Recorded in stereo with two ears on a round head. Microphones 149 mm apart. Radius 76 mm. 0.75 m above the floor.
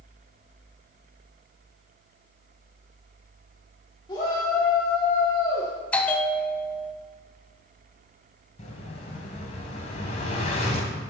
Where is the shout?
25° left (ahead or behind), 1.7 m.